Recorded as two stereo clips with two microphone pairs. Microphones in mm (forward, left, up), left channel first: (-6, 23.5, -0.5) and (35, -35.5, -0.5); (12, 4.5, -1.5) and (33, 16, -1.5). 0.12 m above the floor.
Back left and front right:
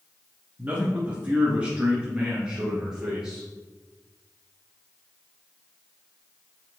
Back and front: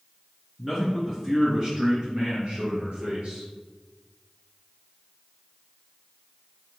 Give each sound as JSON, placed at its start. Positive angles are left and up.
{"t": 0.6, "sound": "a man speaking", "azimuth_deg": -50, "distance_m": 1.1}